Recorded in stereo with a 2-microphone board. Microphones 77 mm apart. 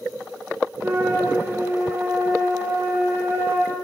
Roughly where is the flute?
Right.